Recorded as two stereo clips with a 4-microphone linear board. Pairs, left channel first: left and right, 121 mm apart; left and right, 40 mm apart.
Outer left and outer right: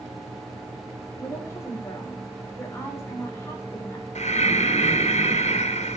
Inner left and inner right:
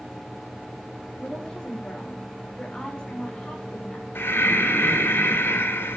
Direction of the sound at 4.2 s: 75° left (ahead or behind).